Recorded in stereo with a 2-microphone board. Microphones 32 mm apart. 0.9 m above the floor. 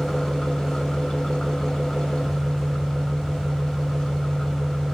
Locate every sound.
0.0 s an engine running: 25° left (ahead or behind), 1.6 m